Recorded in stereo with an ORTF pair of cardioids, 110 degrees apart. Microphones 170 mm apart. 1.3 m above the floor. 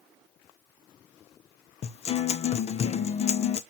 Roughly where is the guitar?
Ahead left.